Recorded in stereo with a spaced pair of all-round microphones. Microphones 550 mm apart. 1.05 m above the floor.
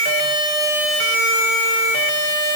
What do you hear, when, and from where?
Only background noise.